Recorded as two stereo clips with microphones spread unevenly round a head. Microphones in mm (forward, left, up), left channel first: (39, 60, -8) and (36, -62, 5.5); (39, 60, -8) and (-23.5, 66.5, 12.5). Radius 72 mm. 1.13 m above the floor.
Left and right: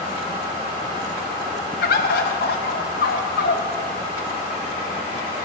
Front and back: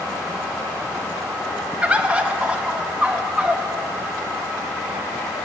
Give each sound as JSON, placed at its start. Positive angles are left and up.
{"t": 1.8, "sound": "a bird", "azimuth_deg": 105, "distance_m": 0.7}